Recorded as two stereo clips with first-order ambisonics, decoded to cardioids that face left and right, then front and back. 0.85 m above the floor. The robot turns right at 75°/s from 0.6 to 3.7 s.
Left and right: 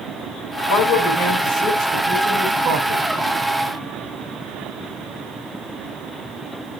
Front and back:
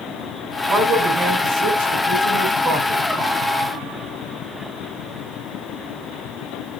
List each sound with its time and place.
0.7 s a man speaking: 85° left, 8 m; by 3.0 s 100° right, 8 m